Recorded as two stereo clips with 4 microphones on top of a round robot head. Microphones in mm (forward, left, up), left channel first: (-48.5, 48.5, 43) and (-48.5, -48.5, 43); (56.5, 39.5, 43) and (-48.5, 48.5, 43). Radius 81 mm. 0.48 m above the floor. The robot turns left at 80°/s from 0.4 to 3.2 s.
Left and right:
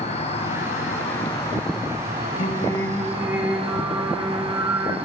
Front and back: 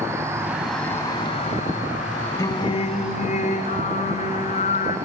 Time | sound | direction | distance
0.0 | an insect | 105° left | 8.5 m
2.4 | singing | 50° left | 2.5 m